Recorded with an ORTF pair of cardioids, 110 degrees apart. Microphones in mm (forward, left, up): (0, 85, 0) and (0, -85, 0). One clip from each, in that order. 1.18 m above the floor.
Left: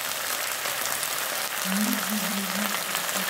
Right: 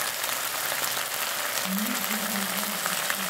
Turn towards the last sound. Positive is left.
turn(degrees=25)